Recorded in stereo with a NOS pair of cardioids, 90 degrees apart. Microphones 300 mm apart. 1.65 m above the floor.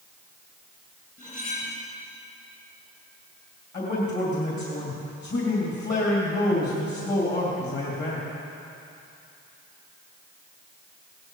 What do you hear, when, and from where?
1.2 s cutlery clinking: 30° left, 5 m
3.7 s a man speaking: 40° left, 3.5 m